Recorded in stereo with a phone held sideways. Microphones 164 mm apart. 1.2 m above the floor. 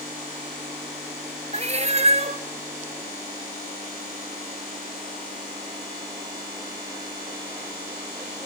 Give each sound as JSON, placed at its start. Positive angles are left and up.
{"t": 1.5, "sound": "a cat meowing", "side_deg": -40, "distance_m": 0.6}